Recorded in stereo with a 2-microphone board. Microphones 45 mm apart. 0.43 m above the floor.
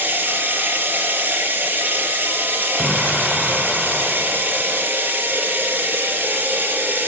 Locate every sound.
0.0 s running water: 45° right (ahead or behind), 5 m
2.8 s an explosion: 5° left (ahead or behind), 3 m